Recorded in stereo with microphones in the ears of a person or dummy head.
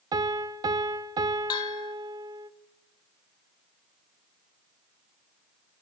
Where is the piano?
20° right (ahead or behind), 0.5 m.